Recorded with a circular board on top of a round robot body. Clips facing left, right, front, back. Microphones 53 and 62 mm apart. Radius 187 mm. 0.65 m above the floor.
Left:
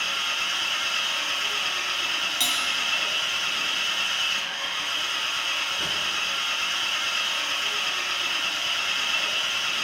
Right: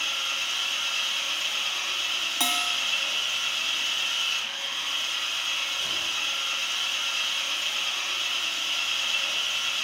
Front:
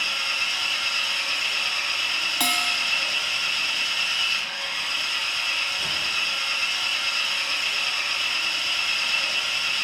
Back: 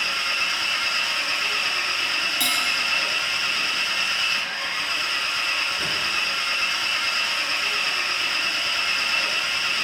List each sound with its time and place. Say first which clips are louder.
0.0 s an engine running: left 3 dB, back 2 dB; 130° left, 2.5 m
2.4 s a bell: right 2 dB, front 2 dB; 35° right, 0.7 m